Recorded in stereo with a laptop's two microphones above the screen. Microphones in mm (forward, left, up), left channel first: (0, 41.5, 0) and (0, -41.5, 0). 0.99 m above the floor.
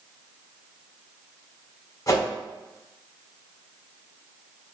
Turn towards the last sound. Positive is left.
turn(degrees=45)  # may be behind; listen again after turning